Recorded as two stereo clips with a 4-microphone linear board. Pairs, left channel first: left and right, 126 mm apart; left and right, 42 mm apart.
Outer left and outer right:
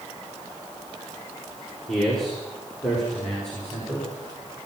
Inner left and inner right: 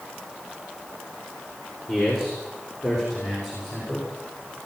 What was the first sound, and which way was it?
A man speaking, 5° left (ahead or behind).